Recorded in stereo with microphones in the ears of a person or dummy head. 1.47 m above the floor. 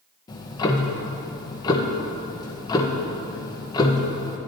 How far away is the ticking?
About 0.8 m.